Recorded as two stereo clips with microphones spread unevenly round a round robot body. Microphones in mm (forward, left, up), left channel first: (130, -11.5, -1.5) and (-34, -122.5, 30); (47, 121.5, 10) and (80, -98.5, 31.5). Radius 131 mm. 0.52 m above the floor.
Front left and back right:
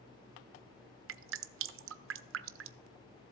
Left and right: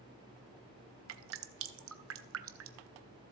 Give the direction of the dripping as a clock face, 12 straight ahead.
4 o'clock.